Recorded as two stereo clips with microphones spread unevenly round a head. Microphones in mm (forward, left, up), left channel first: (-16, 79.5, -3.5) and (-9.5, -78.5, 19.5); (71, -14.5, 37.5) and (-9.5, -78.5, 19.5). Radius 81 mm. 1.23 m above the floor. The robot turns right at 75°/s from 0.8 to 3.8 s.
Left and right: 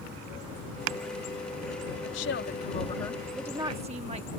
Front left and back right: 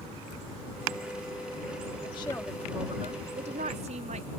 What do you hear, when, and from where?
2.0 s a woman speaking: 90° left; by 4.3 s 140° right